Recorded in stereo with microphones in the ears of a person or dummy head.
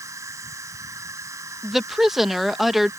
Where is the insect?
15° right (ahead or behind).